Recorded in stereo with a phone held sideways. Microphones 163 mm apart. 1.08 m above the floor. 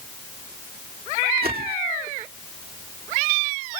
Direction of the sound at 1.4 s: 75° right (ahead or behind).